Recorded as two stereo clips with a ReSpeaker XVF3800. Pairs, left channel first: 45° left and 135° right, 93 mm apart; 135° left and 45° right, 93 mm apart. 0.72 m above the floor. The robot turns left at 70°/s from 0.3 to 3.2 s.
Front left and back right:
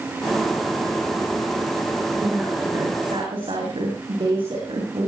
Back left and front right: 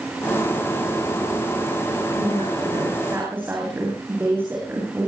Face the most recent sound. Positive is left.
turn(degrees=-110)